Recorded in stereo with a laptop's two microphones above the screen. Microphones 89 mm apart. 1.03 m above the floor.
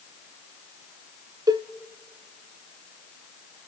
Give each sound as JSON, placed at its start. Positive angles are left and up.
{"t": 1.5, "sound": "a cowbell", "side_deg": -50, "distance_m": 0.8}